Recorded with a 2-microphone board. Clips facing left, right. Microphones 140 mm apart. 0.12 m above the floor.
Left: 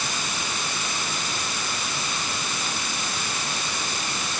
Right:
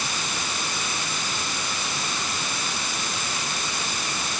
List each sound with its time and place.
Only background noise.